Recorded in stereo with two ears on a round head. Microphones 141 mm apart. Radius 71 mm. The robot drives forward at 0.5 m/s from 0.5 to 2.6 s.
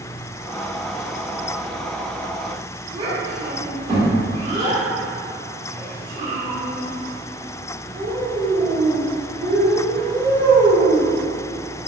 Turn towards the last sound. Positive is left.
turn(degrees=-30)  # may be behind; listen again after turning